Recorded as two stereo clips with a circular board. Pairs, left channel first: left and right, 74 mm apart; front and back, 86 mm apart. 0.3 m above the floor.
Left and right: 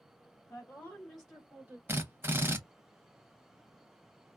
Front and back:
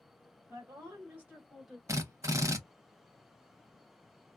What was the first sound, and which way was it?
A woman speaking, 140° left.